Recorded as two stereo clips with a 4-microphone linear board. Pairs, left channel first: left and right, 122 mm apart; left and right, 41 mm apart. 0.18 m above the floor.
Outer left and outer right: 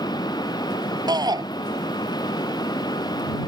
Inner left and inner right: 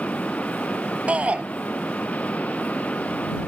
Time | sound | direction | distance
1.1 | a shout | 35° right (ahead or behind) | ?